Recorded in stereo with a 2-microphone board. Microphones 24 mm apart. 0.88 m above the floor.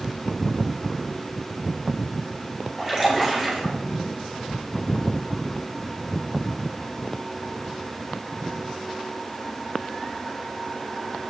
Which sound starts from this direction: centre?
A splash, at 2.8 s.